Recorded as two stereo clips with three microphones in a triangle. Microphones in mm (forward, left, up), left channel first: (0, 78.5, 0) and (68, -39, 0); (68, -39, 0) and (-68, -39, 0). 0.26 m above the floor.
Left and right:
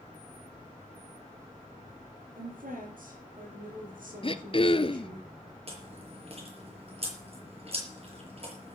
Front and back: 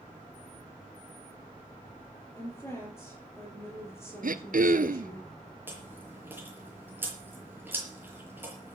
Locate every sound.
2.4 s a woman speaking: 75° right, 7.5 m
4.2 s throat clearing: 170° left, 0.9 m
5.7 s chewing: 105° right, 6.5 m